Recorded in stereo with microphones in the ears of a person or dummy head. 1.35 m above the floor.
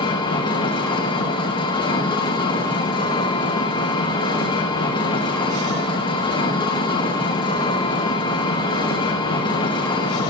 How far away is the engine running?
About 1.0 m.